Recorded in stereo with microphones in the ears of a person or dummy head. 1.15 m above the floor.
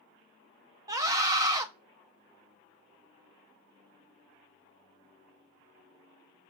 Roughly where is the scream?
Centre.